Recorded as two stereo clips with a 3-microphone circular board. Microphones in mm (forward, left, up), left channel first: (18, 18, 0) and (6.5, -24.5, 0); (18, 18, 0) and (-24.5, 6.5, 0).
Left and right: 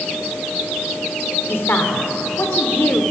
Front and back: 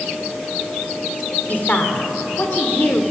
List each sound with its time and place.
1.5 s a woman speaking: 60° left, 2 m